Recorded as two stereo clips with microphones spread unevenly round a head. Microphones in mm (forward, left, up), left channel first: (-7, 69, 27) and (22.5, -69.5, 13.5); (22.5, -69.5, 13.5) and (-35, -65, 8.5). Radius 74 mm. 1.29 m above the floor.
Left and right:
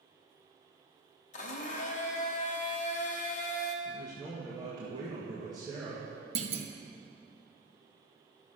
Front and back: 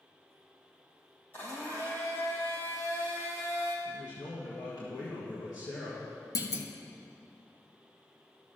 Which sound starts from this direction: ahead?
A man speaking, at 3.9 s.